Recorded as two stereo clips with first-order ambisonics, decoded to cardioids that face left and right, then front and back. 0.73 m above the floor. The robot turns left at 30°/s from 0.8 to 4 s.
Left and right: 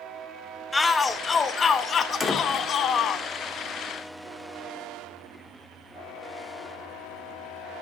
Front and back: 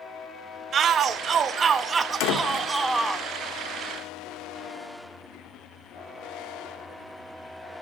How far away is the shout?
About 0.5 m.